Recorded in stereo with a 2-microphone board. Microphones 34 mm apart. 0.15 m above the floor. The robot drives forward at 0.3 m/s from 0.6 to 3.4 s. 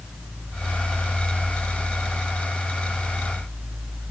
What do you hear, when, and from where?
Only background noise.